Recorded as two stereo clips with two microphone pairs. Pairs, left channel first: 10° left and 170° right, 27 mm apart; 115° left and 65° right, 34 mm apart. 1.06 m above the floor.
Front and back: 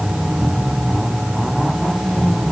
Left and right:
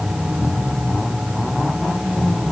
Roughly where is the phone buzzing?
I don't hear a phone buzzing.